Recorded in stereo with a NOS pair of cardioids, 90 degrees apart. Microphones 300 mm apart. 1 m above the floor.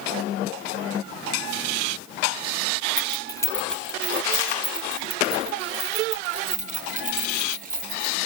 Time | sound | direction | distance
3.0 | keys jangling | 25° left | 1.0 m